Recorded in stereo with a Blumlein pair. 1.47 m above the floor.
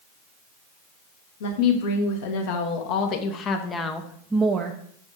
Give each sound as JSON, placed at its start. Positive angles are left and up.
{"t": 1.4, "sound": "a woman speaking", "azimuth_deg": 55, "distance_m": 2.0}